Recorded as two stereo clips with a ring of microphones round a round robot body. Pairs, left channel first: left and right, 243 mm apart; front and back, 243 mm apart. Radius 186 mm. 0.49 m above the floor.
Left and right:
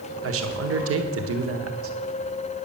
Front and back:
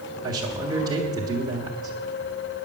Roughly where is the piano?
No piano in this recording.